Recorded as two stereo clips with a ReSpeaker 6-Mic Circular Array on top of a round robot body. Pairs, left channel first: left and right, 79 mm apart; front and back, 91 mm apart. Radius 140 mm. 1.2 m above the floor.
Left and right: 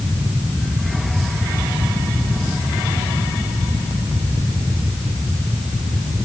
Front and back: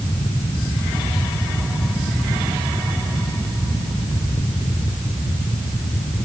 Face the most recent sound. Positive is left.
No sound to turn to.